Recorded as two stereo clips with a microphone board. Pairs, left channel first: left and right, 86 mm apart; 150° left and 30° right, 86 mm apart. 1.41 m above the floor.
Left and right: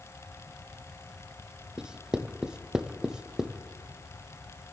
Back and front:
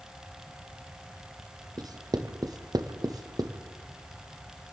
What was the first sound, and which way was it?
Writing, 10° right.